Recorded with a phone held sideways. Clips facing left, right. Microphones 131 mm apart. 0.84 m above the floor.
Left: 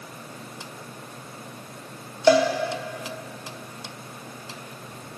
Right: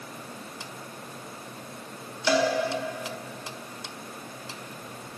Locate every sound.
2.3 s a cowbell: 45° left (ahead or behind), 1.1 m